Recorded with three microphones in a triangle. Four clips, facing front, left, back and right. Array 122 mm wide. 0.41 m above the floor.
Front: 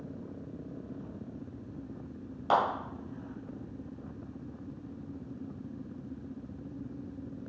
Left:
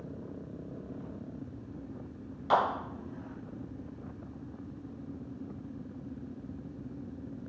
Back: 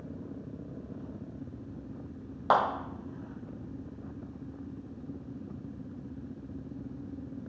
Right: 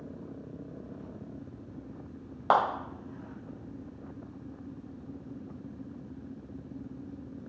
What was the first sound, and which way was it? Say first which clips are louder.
A clap: right 2 dB, back 2 dB; 110° right.